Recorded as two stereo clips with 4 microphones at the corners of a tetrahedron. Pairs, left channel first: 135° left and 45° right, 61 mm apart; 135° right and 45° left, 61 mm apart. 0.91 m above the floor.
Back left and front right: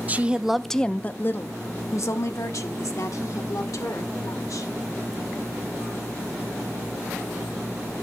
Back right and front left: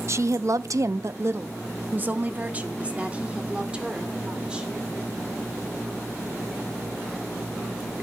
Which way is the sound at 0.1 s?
15° left.